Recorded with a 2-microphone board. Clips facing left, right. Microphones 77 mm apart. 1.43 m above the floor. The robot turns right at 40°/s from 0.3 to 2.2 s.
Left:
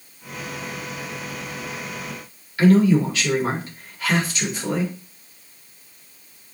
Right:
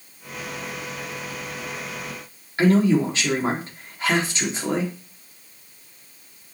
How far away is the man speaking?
About 4 m.